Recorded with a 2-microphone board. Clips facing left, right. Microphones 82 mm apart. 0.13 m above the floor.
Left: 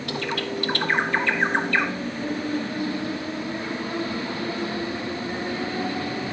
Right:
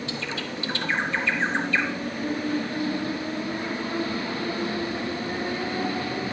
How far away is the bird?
About 0.7 m.